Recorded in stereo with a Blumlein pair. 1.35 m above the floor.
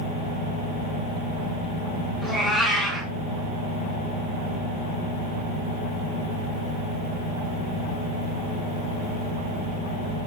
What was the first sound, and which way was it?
A cat meowing, 10° right.